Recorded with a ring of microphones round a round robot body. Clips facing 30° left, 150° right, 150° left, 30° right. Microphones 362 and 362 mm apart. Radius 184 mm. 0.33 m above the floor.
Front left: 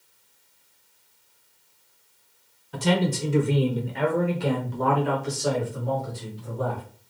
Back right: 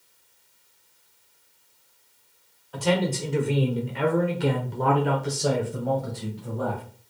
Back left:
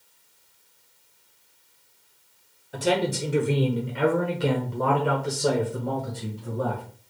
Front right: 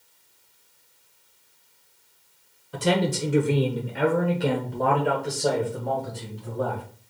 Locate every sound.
2.7 s a man speaking: 50° left, 1.1 m; by 6.8 s 135° right, 2 m